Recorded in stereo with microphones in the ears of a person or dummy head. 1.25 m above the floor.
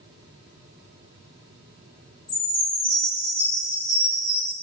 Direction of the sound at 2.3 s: 5° right (ahead or behind).